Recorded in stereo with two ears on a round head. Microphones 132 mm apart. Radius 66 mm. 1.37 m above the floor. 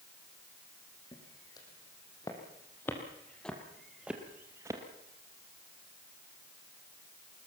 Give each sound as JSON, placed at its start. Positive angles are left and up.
{"t": 1.1, "sound": "footsteps", "side_deg": 30, "distance_m": 4.5}